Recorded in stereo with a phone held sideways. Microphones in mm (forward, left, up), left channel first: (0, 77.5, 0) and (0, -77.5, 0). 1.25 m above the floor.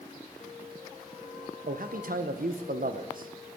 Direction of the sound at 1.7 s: 65° right (ahead or behind).